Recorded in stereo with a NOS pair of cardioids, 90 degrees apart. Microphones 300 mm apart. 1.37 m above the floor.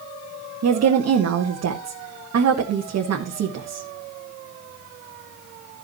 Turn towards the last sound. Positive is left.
turn(degrees=-55)